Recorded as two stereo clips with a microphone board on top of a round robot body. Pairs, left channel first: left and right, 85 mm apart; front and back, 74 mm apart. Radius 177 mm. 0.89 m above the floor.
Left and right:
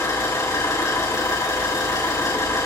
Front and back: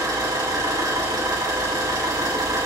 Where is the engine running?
140° left, 7.5 m.